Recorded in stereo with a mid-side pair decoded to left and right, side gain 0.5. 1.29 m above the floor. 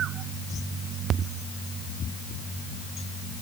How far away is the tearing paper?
No tearing paper in this recording.